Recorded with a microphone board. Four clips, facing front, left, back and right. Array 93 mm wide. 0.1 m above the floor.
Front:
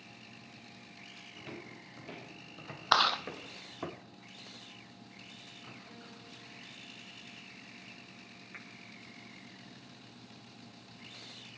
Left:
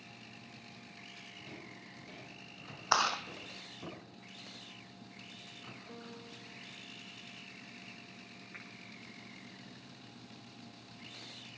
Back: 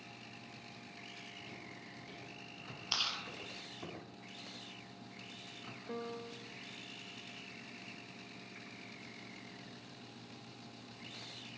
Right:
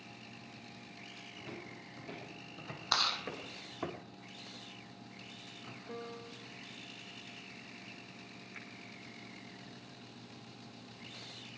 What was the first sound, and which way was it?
Footsteps, 30° right.